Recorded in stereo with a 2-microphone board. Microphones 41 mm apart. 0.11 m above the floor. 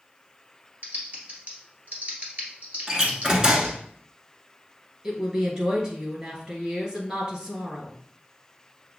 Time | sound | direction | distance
0.8 | typing on a keyboard | 45° right (ahead or behind) | 2.0 m
2.9 | a door slam | 20° right (ahead or behind) | 0.8 m
5.0 | a woman speaking | 30° right (ahead or behind) | 2.0 m